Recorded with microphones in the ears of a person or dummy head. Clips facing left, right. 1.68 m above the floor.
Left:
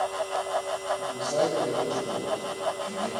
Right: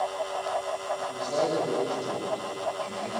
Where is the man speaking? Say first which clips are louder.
Left 2 dB; 10° left (ahead or behind), 9 m.